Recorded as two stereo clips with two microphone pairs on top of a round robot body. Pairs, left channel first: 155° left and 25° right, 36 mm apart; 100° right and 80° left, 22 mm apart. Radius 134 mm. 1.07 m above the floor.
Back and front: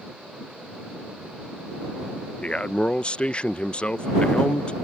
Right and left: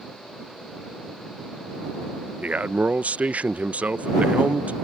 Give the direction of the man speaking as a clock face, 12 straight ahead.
9 o'clock.